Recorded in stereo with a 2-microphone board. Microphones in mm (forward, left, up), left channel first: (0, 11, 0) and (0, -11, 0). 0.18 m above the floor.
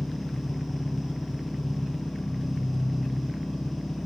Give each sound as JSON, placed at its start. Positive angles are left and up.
{"t": 0.0, "sound": "an engine running", "side_deg": 35, "distance_m": 0.9}